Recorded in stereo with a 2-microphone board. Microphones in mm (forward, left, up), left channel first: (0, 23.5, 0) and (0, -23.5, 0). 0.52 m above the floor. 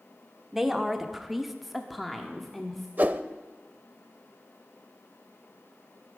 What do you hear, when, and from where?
0.5 s a woman speaking: 10° right (ahead or behind), 1.2 m; by 2.9 s 5° left (ahead or behind), 1.3 m
3.0 s a whoosh: 40° right (ahead or behind), 0.5 m